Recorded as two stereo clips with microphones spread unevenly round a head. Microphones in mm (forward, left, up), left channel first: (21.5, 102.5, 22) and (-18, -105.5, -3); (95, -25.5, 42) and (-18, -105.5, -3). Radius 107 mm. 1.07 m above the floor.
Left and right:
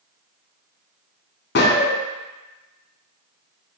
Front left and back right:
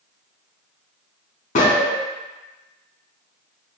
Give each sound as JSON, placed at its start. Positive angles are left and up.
{"t": 1.6, "sound": "a gunshot", "azimuth_deg": 45, "distance_m": 0.9}